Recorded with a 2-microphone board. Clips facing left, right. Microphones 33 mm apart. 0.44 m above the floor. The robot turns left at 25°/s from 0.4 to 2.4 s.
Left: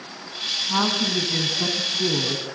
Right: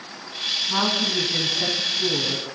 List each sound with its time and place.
0.7 s a woman speaking: 175° left, 4.5 m; by 2.5 s 135° left, 4.5 m